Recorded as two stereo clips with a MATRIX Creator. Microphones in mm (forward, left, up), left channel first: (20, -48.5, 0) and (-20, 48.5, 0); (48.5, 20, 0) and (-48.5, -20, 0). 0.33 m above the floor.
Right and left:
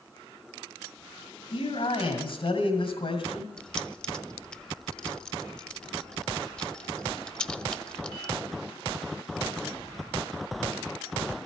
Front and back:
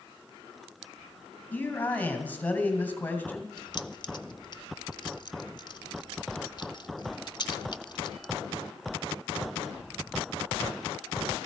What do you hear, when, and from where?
1.5 s a man speaking: 50° right, 2 m
3.6 s keys jangling: 10° left, 0.7 m